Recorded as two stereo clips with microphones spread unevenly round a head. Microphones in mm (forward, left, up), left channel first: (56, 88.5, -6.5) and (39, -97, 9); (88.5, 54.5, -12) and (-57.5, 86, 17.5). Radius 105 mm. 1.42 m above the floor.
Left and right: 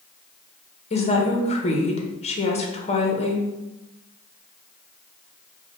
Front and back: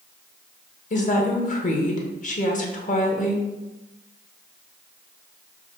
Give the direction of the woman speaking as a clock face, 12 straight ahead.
11 o'clock.